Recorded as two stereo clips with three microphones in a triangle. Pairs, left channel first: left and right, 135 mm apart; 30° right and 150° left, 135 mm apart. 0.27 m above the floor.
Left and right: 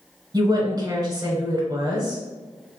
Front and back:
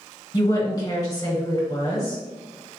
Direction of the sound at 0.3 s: 60° right.